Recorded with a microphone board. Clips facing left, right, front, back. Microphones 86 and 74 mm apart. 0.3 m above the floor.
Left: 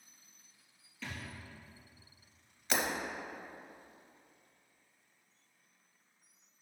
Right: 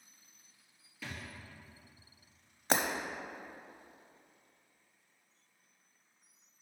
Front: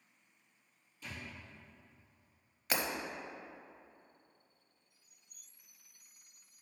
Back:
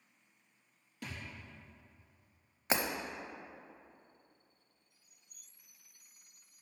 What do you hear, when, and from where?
1.0 s a thud: 170° right, 2.5 m
2.7 s breaking glass: 120° right, 0.8 m